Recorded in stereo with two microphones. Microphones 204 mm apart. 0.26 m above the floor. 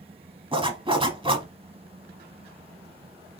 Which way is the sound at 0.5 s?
25° right (ahead or behind).